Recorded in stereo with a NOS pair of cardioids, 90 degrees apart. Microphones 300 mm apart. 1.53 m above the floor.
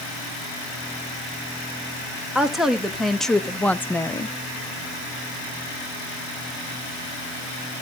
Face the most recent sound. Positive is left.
turn(degrees=15)